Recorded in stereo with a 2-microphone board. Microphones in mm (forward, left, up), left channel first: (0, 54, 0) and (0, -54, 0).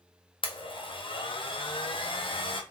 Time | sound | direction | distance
0.4 | a blender | 55° left (ahead or behind) | 0.7 m